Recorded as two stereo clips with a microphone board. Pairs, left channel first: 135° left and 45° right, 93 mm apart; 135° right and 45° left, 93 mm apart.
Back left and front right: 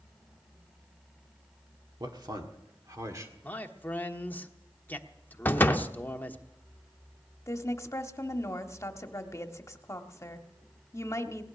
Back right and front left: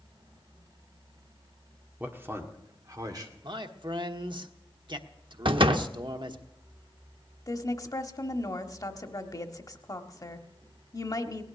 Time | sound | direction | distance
2.0 | a man speaking | 20° right | 1.7 m
3.4 | a man speaking | 70° left | 1.1 m
5.5 | a door slam | 70° left | 0.7 m
7.5 | a woman speaking | 175° right | 1.2 m